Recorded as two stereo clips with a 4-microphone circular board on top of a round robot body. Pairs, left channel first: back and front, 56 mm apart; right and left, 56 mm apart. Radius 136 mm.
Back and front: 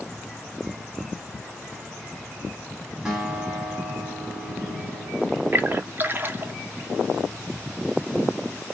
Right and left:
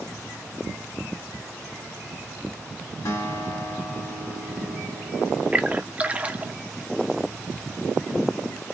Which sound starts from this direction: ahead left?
A splash, at 5.5 s.